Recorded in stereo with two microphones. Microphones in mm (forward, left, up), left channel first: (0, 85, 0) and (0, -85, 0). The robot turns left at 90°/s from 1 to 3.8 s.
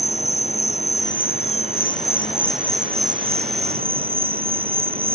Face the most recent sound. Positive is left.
turn(degrees=-115)